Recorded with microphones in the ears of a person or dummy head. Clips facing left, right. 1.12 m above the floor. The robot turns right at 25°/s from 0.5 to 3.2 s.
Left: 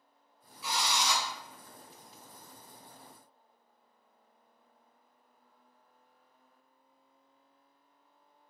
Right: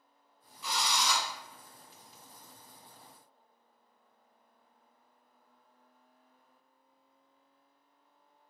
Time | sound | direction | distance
0.6 | a drill | 5° left (ahead or behind) | 1.6 m